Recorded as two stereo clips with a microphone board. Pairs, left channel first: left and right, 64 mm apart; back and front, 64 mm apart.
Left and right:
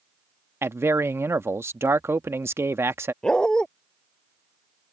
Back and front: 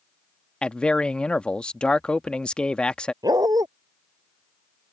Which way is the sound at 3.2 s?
10° left.